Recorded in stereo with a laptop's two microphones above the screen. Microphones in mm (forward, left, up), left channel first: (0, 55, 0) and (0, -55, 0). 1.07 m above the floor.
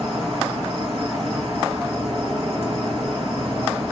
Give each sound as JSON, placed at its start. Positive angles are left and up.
{"t": 0.0, "sound": "an insect", "side_deg": -65, "distance_m": 3.5}